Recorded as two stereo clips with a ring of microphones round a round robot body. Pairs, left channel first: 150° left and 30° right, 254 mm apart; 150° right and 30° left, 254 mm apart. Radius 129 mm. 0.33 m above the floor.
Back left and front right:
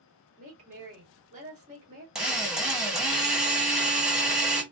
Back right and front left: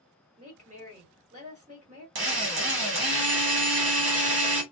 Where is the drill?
55° left, 1.2 m.